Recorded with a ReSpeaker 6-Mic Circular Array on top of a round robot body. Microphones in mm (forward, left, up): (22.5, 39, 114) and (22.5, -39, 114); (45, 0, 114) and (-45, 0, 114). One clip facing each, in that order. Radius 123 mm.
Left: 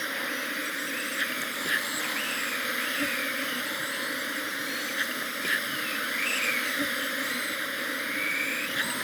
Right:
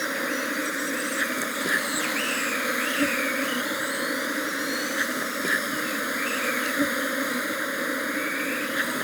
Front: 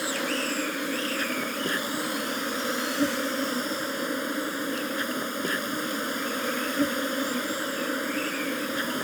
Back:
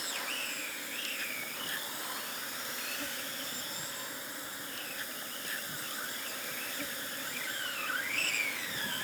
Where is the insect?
30° right.